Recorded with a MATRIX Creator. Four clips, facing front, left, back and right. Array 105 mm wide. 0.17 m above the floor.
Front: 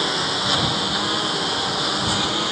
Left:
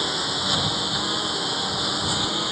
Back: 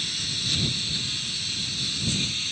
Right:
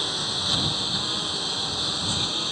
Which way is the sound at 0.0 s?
15° left.